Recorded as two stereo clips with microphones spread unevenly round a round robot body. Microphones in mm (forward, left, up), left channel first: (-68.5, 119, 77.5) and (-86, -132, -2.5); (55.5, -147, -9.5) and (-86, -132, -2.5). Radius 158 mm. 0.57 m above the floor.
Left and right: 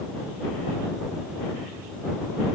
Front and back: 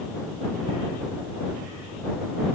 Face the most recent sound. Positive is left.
No sound to turn to.